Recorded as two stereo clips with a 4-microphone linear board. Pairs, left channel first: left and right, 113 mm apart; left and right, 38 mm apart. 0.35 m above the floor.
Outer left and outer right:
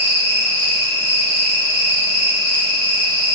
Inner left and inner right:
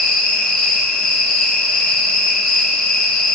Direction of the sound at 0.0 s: 15° left (ahead or behind).